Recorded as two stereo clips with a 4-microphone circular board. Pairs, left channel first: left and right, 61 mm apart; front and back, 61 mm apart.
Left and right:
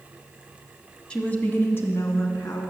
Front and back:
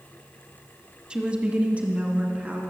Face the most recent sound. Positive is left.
turn(degrees=120)